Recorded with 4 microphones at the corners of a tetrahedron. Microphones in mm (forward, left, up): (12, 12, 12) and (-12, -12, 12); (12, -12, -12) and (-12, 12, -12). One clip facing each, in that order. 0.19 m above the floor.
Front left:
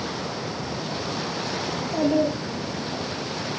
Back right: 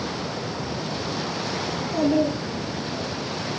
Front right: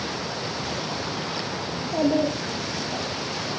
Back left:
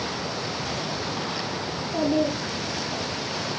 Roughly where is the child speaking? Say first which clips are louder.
Back right 1 dB, front right 2 dB; ahead.